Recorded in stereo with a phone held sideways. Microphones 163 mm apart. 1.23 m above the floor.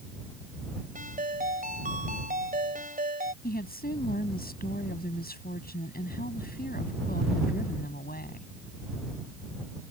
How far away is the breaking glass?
I don't hear breaking glass.